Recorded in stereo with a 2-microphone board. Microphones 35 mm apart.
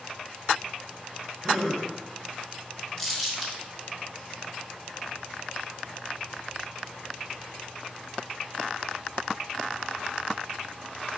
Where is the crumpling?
15° left (ahead or behind), 1.2 m.